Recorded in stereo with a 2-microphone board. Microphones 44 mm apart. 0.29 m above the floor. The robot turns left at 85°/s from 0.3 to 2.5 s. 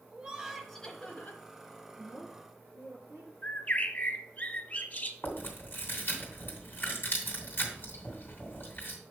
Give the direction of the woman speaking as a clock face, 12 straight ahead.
1 o'clock.